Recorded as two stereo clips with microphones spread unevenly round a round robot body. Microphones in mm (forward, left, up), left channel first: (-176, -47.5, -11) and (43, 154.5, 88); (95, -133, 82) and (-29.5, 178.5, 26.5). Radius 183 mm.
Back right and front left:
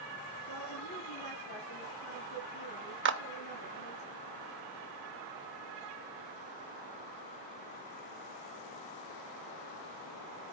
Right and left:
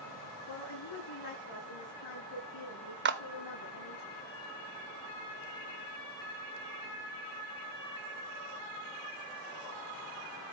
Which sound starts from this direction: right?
A woman speaking, at 0.5 s.